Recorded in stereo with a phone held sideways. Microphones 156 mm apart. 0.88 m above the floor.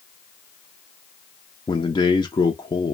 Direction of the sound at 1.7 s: 25° left (ahead or behind).